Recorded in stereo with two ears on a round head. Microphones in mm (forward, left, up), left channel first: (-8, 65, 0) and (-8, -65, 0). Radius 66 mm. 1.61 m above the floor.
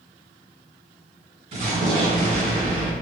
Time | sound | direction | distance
1.5 | an explosion | 45° right (ahead or behind) | 1.6 m